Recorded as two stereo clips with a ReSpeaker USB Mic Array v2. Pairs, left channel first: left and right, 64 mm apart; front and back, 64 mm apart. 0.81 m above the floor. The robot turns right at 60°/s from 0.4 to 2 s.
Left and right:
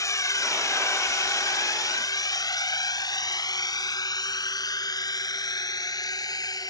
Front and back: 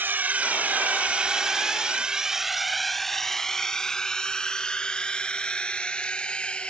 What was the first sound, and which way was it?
A drone, 125° left.